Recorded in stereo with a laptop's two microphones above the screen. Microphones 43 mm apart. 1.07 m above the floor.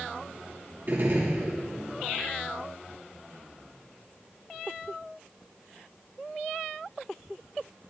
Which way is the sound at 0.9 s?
55° right (ahead or behind).